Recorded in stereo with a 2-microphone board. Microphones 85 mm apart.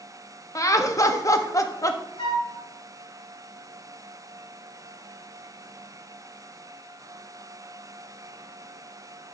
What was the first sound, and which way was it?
Laughter, 40° left (ahead or behind).